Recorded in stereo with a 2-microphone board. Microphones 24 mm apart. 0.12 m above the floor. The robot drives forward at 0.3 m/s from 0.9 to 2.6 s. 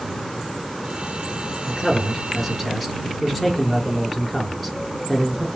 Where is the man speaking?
Centre (ahead or behind), 2.5 m.